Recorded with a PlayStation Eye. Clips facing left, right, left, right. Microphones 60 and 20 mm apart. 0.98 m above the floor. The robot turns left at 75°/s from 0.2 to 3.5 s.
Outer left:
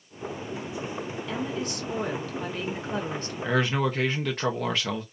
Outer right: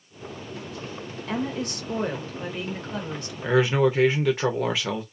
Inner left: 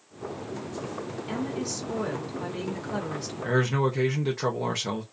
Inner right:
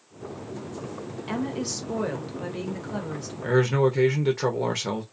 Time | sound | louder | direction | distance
1.3 | a woman speaking | outer right 4 dB, inner right 3 dB | 75° right | 1.1 m
3.4 | a man speaking | outer right 5 dB, inner right 4 dB | 5° right (ahead or behind) | 0.7 m